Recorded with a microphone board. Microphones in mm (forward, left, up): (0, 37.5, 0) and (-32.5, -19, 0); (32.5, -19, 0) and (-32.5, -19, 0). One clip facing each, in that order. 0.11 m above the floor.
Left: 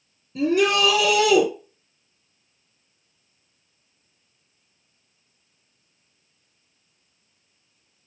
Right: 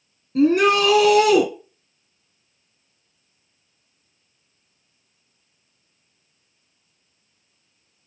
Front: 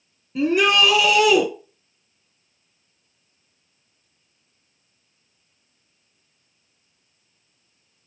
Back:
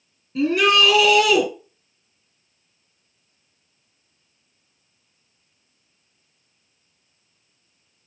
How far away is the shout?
About 2.5 m.